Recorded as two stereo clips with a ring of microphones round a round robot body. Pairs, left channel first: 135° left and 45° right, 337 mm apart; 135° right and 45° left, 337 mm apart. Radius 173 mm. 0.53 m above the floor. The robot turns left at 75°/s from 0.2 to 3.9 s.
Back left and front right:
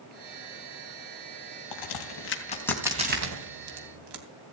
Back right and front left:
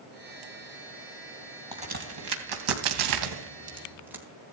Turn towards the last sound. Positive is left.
turn(degrees=-40)